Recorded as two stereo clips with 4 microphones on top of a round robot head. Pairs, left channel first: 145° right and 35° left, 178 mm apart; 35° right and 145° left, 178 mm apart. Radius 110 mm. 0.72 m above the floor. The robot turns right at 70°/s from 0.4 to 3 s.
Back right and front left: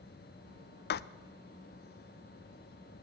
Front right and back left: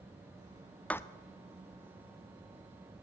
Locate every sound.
0.9 s writing: 120° right, 0.7 m; by 1.0 s 110° right, 0.7 m